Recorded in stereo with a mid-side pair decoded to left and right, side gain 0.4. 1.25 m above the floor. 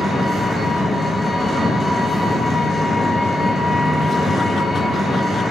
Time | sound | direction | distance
0.0 | an engine running | 30° left | 0.7 m